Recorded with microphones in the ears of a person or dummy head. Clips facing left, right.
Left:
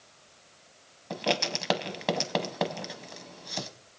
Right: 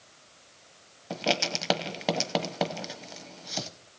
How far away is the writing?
About 0.8 m.